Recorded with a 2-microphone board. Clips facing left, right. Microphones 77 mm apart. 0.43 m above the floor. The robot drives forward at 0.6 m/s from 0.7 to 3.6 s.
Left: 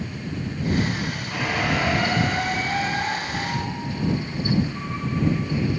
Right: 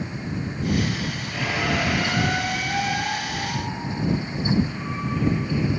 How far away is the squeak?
About 2.5 m.